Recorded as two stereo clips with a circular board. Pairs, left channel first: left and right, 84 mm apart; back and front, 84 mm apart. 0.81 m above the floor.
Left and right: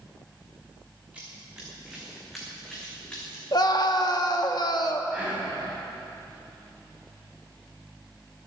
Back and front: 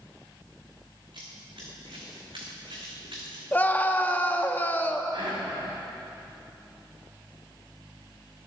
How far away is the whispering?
About 5 m.